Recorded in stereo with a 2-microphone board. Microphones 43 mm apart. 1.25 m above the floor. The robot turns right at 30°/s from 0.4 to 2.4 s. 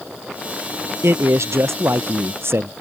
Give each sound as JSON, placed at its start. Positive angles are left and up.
{"t": 1.0, "sound": "a man speaking", "azimuth_deg": -105}